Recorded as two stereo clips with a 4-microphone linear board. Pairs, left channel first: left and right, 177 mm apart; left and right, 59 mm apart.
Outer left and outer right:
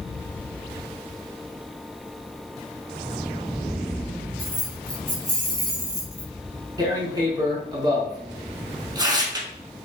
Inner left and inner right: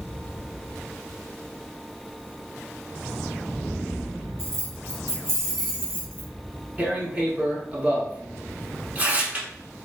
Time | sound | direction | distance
4.4 | keys jangling | 50° right (ahead or behind) | 1.2 m
6.8 | tearing paper | 20° right (ahead or behind) | 0.6 m